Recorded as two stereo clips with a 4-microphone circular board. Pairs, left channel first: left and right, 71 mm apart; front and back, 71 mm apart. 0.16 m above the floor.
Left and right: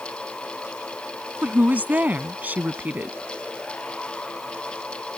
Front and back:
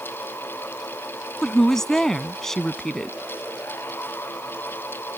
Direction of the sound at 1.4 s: 75° right.